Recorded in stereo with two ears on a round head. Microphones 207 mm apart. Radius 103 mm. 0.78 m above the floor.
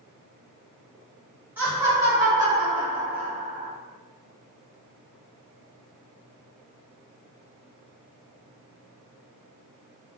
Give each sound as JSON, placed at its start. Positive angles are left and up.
{"t": 1.6, "sound": "laughter", "side_deg": -10, "distance_m": 1.4}